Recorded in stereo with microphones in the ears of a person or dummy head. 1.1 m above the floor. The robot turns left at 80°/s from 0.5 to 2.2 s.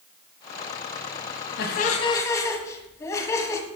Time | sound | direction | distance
1.6 | laughter | 70° left | 1.1 m